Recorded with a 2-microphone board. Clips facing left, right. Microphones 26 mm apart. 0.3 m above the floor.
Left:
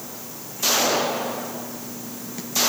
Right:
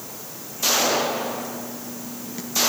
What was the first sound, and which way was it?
Only background noise.